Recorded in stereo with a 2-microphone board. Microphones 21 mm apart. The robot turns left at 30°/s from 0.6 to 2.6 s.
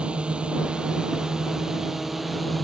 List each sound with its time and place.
0.0 s a drone: 120° right; by 2.6 s straight behind